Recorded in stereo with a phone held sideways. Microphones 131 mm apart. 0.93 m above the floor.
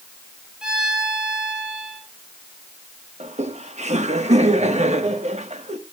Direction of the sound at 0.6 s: 5° right (ahead or behind).